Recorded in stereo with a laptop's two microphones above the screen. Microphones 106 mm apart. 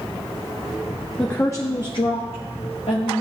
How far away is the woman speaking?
About 0.9 m.